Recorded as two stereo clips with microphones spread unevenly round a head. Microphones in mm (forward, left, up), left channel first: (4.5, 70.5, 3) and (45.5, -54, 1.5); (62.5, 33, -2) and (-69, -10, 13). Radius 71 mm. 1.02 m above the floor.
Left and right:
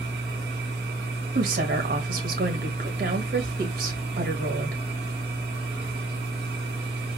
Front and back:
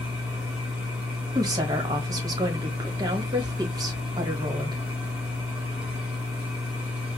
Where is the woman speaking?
95° right, 1.3 m.